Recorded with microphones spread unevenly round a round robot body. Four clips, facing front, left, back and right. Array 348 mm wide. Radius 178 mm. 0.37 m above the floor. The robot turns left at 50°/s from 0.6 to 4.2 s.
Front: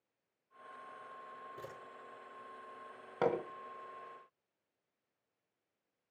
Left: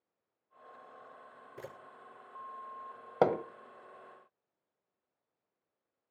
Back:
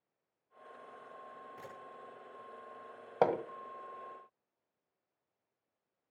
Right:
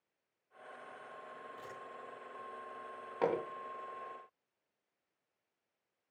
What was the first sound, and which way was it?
A camera shutter, 70° left.